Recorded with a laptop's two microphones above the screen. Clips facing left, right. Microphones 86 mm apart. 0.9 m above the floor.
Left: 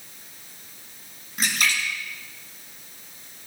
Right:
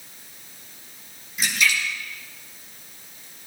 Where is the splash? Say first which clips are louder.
Right 2 dB; 50° left (ahead or behind), 8 m.